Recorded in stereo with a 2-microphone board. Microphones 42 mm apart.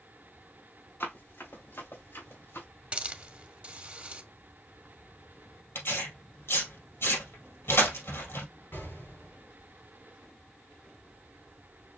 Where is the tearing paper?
75° left (ahead or behind), 2.5 m.